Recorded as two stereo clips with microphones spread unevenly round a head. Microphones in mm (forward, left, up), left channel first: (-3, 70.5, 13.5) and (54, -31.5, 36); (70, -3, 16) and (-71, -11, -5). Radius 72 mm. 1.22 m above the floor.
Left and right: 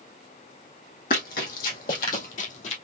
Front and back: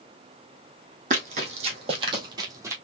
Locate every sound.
1.1 s running footsteps: 145° left, 2 m; by 2.8 s 105° left, 1.6 m